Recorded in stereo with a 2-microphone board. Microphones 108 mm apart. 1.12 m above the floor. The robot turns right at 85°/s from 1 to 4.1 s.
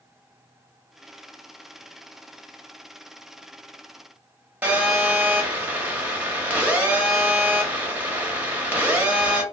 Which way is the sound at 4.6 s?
15° right (ahead or behind).